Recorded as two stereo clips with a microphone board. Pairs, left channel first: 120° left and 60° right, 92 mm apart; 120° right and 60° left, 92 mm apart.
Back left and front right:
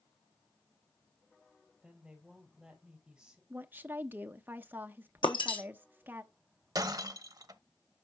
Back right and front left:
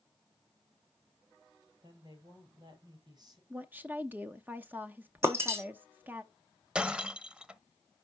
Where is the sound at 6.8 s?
20° right, 0.6 m.